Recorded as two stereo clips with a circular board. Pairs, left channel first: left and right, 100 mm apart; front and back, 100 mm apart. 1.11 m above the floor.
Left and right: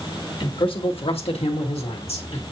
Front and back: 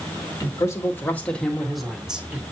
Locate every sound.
0.4 s a man speaking: 55° left, 1.5 m; by 2.4 s 105° left, 1.7 m